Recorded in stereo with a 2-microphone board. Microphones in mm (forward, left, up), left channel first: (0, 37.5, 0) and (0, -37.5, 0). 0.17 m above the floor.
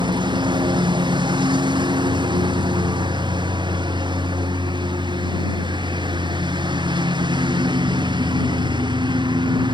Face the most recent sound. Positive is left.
turn(degrees=-85)